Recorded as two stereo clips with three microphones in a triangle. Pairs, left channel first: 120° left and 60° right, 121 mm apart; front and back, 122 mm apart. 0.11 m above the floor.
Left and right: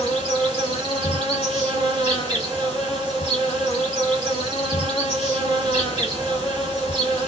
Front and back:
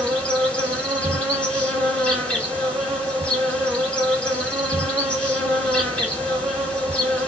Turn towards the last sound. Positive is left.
turn(degrees=-75)